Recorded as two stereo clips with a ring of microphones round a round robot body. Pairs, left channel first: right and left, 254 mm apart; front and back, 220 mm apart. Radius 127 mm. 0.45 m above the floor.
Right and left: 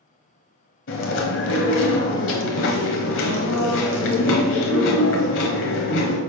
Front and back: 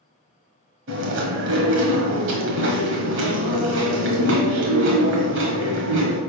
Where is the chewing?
135° right, 1.2 m.